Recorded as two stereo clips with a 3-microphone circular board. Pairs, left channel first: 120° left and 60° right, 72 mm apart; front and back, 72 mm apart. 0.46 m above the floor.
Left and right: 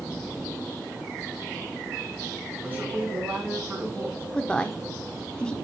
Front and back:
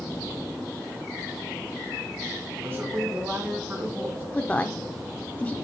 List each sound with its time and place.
2.6 s a man speaking: 125° right, 3.5 m
4.3 s a woman speaking: 55° left, 0.8 m